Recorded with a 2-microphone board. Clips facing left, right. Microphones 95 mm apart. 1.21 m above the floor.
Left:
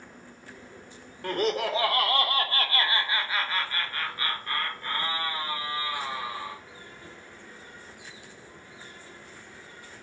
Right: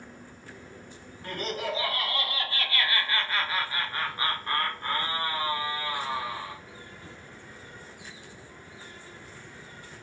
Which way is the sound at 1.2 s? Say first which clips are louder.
Left 6 dB; 70° left (ahead or behind).